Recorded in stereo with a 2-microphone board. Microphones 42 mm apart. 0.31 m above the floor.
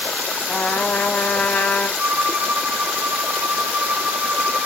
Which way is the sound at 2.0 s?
55° right (ahead or behind).